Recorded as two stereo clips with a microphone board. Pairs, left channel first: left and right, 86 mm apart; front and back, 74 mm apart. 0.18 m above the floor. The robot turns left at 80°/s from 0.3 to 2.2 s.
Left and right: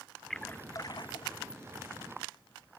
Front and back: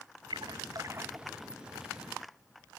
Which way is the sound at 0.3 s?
Straight behind.